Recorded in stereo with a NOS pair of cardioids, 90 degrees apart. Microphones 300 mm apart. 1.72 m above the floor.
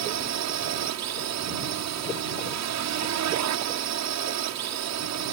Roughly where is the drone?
Right.